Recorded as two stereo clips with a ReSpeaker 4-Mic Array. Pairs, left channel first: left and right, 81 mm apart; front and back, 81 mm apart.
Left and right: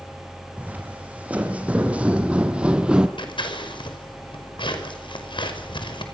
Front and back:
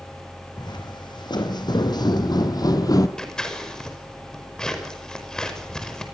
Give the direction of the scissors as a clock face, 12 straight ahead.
9 o'clock.